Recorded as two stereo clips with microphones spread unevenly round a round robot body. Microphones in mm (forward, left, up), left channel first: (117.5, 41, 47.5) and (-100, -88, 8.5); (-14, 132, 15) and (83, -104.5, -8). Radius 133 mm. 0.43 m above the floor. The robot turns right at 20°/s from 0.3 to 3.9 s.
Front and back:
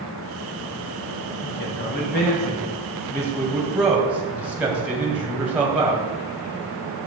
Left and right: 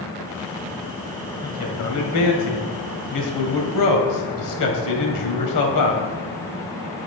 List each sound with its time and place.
1.4 s a man speaking: 80° left, 1.9 m; by 6.0 s 130° left, 1.9 m